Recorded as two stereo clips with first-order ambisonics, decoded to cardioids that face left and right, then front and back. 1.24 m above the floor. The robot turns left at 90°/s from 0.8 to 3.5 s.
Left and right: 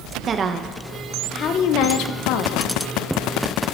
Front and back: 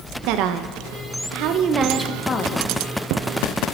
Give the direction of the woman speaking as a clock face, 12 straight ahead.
5 o'clock.